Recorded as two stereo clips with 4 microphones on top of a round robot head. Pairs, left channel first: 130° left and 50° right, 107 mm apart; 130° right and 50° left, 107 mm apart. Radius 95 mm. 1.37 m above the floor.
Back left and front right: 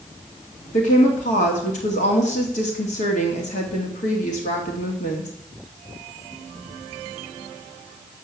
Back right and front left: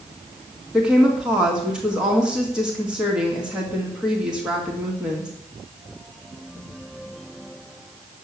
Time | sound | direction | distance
0.7 | a woman speaking | 135° left | 1.9 m